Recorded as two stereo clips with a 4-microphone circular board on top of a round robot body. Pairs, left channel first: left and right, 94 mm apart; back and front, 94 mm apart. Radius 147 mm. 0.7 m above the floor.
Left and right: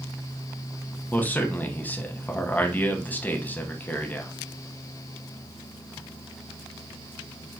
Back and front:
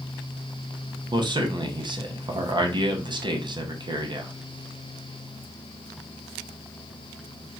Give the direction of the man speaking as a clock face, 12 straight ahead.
11 o'clock.